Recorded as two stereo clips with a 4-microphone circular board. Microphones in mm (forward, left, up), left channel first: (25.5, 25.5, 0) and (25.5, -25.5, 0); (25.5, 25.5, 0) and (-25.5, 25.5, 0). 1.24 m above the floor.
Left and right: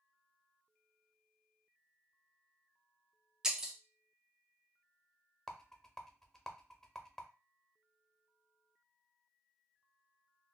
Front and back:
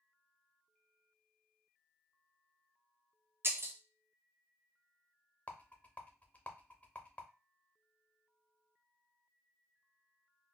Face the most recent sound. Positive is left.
turn(degrees=20)